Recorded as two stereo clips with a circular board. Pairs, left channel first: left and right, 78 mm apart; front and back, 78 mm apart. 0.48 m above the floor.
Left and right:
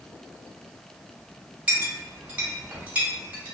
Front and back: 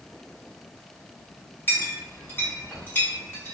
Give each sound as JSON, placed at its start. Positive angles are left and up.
{"t": 1.7, "sound": "a clink", "azimuth_deg": -35, "distance_m": 0.9}